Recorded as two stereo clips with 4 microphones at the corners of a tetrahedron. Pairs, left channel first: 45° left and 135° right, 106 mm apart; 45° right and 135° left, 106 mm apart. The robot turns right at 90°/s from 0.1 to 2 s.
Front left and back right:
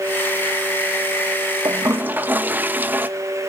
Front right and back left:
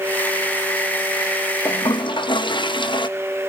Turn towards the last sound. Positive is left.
turn(degrees=-65)